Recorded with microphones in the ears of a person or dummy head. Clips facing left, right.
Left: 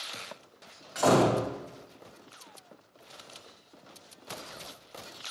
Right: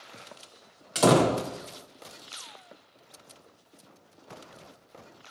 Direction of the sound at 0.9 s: 45° right (ahead or behind).